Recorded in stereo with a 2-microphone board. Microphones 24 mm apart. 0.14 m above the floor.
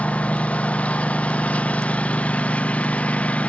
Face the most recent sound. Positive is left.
turn(degrees=75)  # may be behind; listen again after turning